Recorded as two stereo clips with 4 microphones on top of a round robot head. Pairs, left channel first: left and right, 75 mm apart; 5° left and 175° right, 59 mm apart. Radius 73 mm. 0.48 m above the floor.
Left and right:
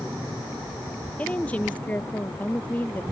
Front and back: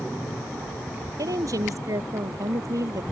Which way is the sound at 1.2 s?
165° left.